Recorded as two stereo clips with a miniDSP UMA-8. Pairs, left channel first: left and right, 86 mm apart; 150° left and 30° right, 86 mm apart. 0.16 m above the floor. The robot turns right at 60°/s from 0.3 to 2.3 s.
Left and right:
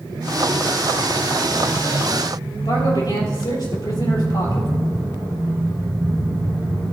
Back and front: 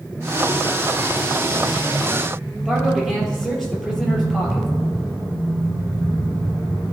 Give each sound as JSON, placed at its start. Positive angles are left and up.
{"t": 2.6, "sound": "a man speaking", "azimuth_deg": 65, "distance_m": 3.0}